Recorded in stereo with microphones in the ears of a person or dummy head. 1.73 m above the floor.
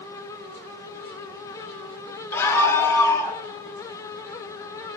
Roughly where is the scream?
Centre.